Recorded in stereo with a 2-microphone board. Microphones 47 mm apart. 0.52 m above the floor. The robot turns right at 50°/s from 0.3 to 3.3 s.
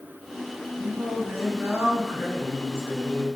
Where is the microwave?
I don't hear a microwave.